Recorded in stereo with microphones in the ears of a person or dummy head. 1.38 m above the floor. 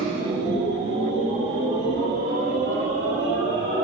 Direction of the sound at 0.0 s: 25° right (ahead or behind).